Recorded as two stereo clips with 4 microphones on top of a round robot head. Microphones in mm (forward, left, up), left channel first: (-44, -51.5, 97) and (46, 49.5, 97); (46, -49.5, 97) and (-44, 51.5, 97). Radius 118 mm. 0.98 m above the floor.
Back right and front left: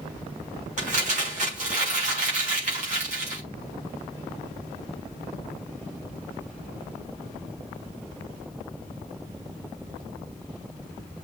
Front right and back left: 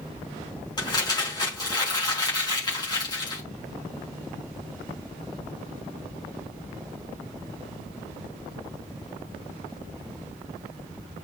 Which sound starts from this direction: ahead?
Crumpling, at 0.8 s.